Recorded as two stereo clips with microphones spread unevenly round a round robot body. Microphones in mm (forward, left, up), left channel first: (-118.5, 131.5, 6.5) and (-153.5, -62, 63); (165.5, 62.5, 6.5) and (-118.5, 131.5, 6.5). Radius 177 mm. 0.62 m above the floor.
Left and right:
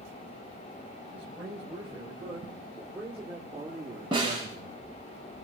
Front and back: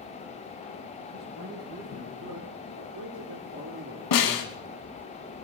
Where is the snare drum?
25° right, 3 m.